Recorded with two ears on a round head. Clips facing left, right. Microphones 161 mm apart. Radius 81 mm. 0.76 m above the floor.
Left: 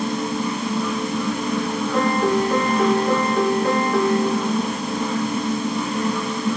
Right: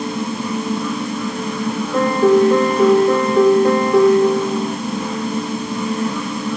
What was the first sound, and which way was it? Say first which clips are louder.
A piano: right 7 dB; 85° right.